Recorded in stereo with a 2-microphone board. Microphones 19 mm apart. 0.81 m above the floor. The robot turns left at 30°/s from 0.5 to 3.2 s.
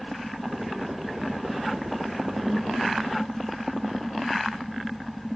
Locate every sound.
2.4 s a whoosh: 10° right (ahead or behind), 6.5 m; by 2.7 s centre (ahead or behind), 6.5 m